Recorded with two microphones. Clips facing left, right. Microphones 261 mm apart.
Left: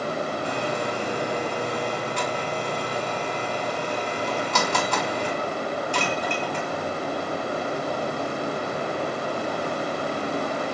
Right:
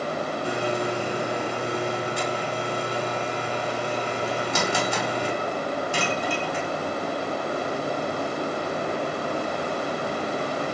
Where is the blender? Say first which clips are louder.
Right 1 dB; 10° right (ahead or behind), 5.5 m.